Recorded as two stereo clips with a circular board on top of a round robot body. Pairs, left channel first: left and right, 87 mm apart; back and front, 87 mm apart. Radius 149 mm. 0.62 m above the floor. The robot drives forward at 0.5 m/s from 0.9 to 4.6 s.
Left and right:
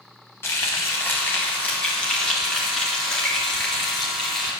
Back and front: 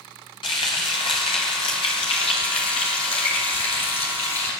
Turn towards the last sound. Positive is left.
turn(degrees=175)